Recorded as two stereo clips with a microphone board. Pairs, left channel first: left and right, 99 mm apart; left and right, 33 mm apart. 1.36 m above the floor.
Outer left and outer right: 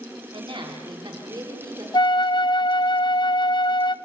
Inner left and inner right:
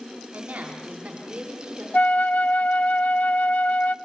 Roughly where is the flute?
Left.